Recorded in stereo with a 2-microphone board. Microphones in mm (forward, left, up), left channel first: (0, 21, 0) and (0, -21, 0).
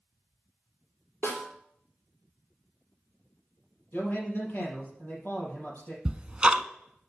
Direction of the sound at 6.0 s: 25° right (ahead or behind).